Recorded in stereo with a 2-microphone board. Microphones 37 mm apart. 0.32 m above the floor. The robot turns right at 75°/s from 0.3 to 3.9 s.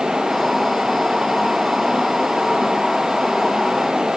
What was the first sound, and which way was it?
Only background noise.